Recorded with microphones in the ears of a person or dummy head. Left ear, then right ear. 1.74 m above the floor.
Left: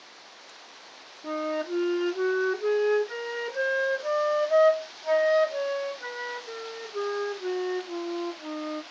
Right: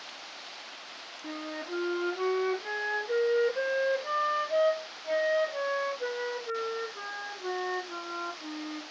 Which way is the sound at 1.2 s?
25° left (ahead or behind).